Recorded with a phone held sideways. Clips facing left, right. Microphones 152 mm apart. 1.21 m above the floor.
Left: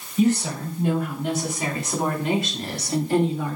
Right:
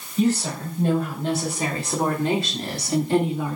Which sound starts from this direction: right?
A woman speaking, at 0.2 s.